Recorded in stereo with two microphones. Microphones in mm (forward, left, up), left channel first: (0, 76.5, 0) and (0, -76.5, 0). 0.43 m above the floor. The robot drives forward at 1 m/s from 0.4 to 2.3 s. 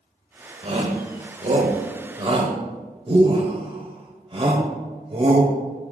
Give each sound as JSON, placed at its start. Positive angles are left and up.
{"t": 0.6, "sound": "a shout", "side_deg": -40, "distance_m": 1.7}